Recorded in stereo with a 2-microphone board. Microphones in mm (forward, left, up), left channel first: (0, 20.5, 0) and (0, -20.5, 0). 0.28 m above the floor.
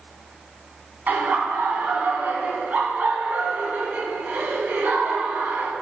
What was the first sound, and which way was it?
Laughter, 45° right (ahead or behind).